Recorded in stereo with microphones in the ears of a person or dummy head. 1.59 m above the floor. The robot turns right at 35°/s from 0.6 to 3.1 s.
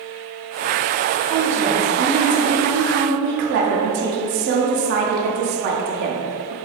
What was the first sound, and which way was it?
A woman speaking, straight behind.